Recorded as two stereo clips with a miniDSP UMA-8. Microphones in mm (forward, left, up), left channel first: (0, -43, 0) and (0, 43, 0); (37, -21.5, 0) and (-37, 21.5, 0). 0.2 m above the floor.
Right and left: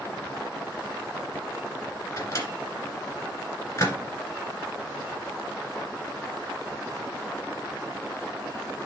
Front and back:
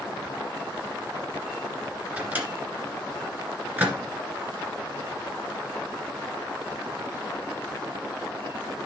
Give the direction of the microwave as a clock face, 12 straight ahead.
5 o'clock.